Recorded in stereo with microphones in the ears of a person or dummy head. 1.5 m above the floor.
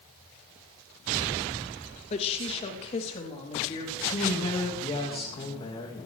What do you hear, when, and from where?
2.1 s a woman speaking: 35° left (ahead or behind), 1.9 m; by 4.0 s 30° left (ahead or behind), 4 m
4.1 s a woman speaking: 30° left (ahead or behind), 2.5 m